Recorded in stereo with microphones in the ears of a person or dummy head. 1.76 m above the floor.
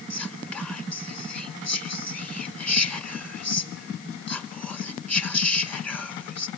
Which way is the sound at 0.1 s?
10° left (ahead or behind).